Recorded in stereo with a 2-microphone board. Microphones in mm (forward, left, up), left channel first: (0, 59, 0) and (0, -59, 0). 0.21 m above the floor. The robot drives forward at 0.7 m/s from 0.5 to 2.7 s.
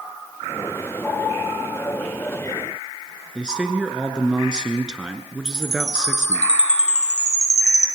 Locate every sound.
3.4 s a man speaking: 5° right (ahead or behind), 3 m
5.5 s a chime: 65° left (ahead or behind), 2 m